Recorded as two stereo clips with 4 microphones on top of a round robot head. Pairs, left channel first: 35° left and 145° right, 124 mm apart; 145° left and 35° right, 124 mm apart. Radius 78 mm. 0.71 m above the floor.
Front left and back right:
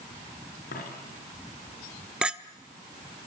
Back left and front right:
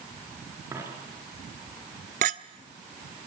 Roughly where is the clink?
Ahead right.